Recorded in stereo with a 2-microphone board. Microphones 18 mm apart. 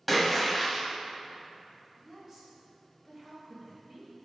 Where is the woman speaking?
20° right (ahead or behind), 1.5 m.